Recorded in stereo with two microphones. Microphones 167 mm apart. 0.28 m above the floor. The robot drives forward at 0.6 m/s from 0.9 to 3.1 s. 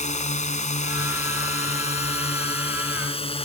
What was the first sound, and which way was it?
A drone, 45° left (ahead or behind).